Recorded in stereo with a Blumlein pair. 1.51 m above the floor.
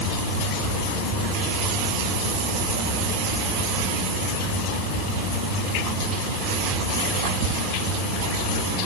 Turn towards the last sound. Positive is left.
No sound to turn to.